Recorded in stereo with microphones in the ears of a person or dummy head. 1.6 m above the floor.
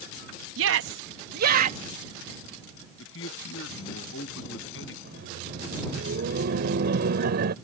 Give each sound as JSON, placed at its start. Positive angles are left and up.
{"t": 0.6, "sound": "a shout", "side_deg": -75}
{"t": 3.0, "sound": "a man speaking", "side_deg": 80}
{"t": 5.0, "sound": "laughter", "side_deg": -45}